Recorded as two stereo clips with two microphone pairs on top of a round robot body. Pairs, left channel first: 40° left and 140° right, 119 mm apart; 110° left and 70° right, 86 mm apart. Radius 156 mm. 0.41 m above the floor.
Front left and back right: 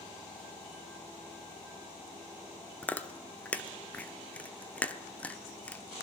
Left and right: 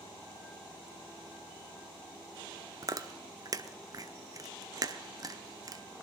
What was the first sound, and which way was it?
Chewing, 40° right.